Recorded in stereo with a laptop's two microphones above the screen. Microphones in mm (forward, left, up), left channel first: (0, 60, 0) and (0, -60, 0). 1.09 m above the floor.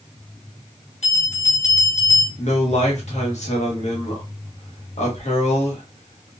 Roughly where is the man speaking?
Left.